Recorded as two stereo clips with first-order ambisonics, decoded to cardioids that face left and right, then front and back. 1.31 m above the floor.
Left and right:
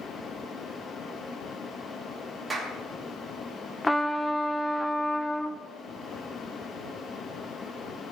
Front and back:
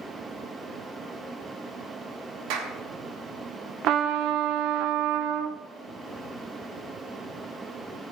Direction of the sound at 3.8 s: 170° left.